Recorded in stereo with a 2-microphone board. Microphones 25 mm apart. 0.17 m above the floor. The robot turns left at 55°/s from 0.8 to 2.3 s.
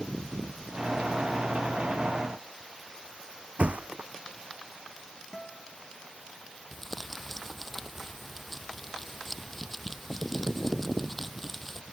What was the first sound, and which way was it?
A thud, 65° right (ahead or behind).